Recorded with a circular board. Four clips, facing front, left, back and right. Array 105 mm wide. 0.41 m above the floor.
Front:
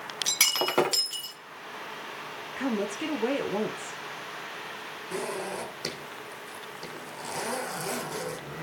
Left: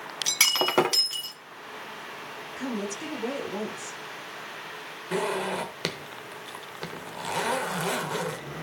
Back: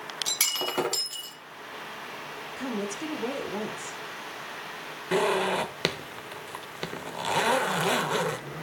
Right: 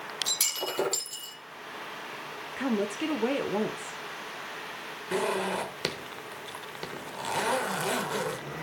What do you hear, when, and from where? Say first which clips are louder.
0.3 s breaking glass: left 10 dB, front 4 dB; 70° left, 1.3 m
2.6 s a woman speaking: right 4 dB, front 3 dB; 55° right, 0.8 m
5.1 s a zipper: left 1 dB, back 9 dB; 175° left, 0.9 m